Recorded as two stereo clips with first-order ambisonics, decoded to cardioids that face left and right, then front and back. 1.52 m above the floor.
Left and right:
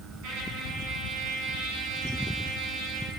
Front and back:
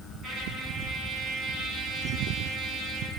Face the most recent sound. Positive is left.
turn(degrees=-120)